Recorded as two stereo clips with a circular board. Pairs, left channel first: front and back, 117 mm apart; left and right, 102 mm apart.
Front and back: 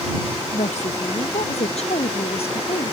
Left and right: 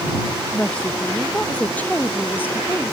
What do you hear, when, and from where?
0.5 s a woman speaking: 10° left; by 2.9 s 25° left